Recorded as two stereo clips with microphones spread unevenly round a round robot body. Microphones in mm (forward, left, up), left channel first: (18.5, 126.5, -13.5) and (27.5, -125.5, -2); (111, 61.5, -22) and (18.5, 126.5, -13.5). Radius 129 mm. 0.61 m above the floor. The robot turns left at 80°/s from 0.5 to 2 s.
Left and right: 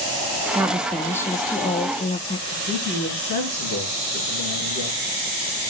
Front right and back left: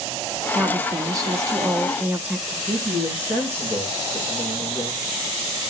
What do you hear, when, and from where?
0.6 s a woman speaking: 160° right, 0.6 m; by 2.4 s 85° left, 0.6 m
2.5 s a man speaking: 150° right, 6.5 m